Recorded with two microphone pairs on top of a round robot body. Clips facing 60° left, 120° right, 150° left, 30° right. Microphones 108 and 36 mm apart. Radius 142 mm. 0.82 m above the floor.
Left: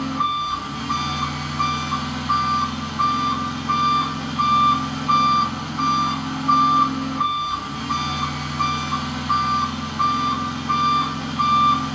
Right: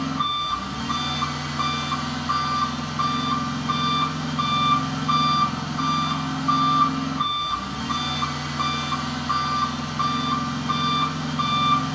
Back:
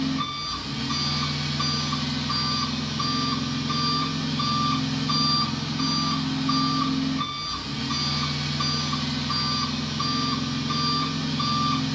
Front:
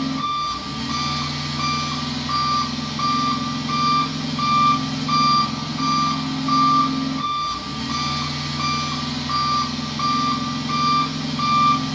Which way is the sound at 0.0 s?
20° right.